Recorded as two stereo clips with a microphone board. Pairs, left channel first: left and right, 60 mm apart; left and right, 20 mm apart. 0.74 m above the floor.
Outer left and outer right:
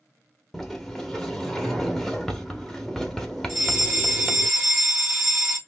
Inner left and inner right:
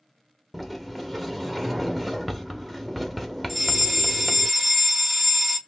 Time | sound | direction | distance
0.5 | a sliding door | 5° left (ahead or behind) | 0.9 m
3.5 | a fire alarm | 10° right (ahead or behind) | 1.8 m